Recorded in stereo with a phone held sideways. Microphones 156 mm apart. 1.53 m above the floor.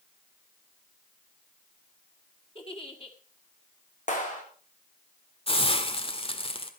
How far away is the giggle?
About 2 m.